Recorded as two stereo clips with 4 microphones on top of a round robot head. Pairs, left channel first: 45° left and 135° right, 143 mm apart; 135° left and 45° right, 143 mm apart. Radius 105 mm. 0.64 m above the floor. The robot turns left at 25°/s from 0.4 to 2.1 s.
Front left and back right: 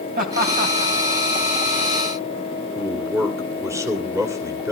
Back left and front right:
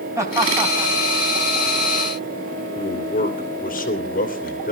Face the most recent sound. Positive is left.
turn(degrees=155)